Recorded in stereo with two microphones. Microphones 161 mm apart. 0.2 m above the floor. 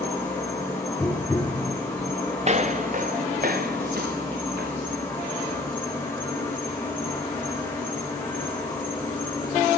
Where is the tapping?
10° left (ahead or behind), 4.5 m.